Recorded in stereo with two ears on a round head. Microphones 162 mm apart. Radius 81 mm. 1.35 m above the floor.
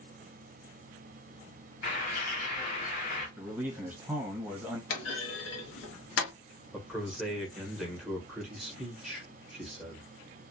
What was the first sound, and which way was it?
A bird, 50° left (ahead or behind).